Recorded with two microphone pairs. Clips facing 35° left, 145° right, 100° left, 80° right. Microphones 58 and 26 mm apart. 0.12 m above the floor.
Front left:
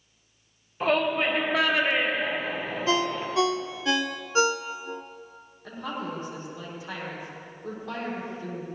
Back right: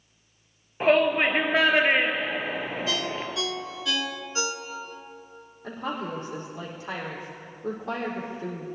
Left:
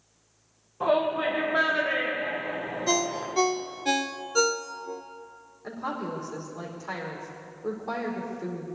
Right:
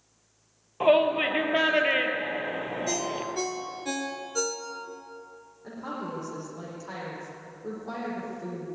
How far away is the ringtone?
About 0.8 m.